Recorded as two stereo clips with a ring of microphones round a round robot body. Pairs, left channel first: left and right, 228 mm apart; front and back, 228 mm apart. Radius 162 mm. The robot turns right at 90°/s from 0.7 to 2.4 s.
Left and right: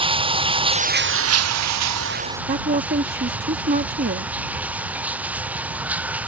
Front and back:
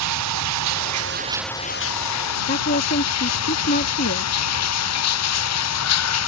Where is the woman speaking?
40° right.